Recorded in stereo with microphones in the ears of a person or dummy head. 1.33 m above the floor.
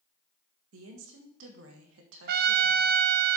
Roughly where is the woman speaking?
Right.